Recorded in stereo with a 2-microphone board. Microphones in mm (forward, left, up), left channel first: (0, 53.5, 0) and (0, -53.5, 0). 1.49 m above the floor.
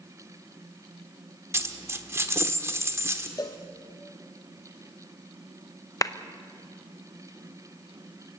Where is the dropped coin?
25° right (ahead or behind), 1.2 m.